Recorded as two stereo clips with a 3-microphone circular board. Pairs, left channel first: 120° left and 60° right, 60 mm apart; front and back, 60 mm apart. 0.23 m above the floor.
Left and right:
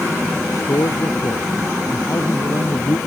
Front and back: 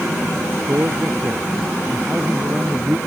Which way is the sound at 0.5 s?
130° left.